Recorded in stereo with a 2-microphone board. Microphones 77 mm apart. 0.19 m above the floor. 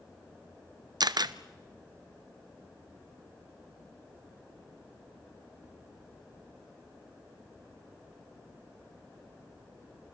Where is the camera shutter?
65° right (ahead or behind), 0.7 m.